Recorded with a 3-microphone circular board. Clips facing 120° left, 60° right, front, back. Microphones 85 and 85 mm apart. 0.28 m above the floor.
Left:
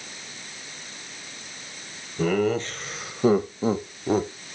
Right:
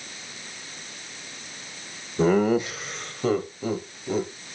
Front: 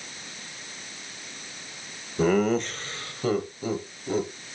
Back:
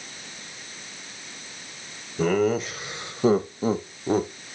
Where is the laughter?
75° right, 1.0 m; by 4.3 s 150° left, 1.3 m.